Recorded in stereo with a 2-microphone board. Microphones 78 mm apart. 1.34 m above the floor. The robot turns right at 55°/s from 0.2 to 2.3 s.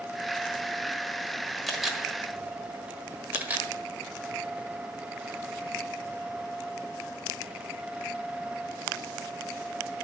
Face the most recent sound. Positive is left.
turn(degrees=-20)  # may be behind; listen again after turning